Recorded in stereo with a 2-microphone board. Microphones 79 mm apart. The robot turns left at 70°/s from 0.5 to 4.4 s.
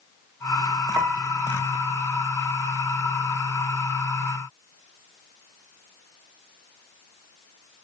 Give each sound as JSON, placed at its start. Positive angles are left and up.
{"t": 0.9, "sound": "a piano", "azimuth_deg": -140, "distance_m": 1.5}